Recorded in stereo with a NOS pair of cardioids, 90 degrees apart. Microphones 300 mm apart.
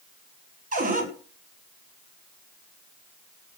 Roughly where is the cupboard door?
Ahead right.